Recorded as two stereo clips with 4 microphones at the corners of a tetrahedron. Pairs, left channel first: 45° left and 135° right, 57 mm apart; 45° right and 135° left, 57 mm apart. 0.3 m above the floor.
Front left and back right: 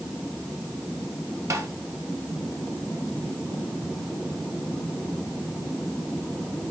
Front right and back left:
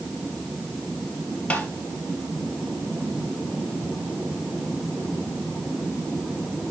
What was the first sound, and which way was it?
Tapping, 110° right.